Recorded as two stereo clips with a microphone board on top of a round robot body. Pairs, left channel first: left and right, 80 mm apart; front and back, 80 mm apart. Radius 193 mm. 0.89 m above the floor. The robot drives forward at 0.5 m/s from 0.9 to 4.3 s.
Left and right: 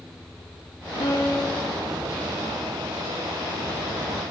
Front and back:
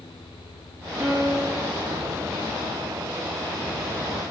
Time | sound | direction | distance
1.0 | a piano | 115° left | 2 m